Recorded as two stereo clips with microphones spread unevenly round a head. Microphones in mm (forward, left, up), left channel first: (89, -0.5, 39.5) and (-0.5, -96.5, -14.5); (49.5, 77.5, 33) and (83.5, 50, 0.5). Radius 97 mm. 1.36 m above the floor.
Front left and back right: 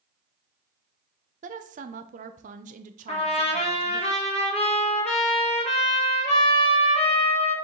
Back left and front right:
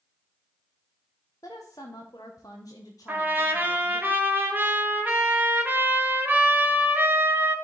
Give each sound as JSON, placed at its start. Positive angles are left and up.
{"t": 1.4, "sound": "a woman speaking", "azimuth_deg": -155, "distance_m": 0.6}
{"t": 3.1, "sound": "a trumpet", "azimuth_deg": 5, "distance_m": 1.6}